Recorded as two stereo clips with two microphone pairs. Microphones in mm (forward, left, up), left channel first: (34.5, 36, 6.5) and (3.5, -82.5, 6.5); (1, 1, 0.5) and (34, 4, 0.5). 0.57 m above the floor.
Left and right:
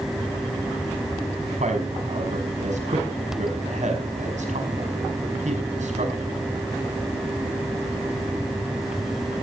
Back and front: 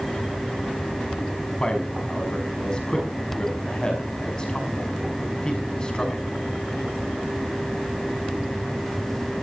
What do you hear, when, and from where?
1.6 s a man speaking: 115° right, 5.5 m